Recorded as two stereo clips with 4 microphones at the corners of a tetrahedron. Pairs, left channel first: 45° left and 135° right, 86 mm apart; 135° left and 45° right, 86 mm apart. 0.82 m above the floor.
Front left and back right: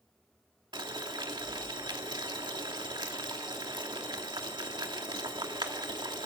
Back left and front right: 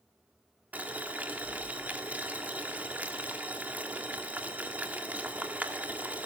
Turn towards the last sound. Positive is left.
turn(degrees=-115)